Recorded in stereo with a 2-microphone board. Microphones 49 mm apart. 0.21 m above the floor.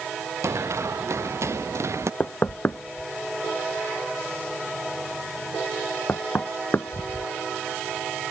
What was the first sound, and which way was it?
Running footsteps, 75° right (ahead or behind).